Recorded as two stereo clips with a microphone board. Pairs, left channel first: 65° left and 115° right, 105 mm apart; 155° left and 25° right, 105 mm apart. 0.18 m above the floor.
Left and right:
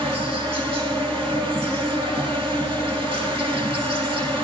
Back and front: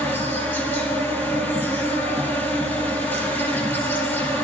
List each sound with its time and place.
0.0 s an insect: 135° right, 3 m